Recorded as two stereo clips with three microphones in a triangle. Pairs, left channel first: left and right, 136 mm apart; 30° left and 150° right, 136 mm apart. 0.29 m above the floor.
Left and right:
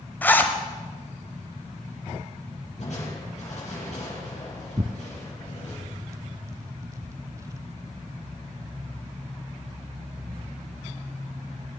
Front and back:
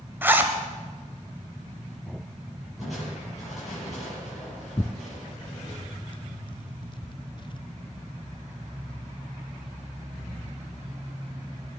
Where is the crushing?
120° left, 6.5 m.